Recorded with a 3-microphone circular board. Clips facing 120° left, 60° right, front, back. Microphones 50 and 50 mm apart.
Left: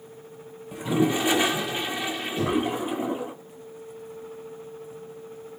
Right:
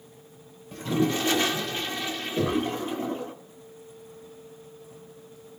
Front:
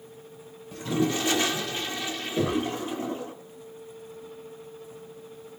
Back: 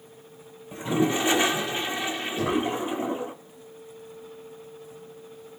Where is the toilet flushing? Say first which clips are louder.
Left 2 dB, back 2 dB; 170° left, 0.7 m.